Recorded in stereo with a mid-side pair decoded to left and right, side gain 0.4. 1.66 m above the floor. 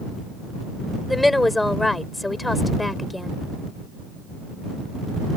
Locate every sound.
1.1 s a woman speaking: 15° left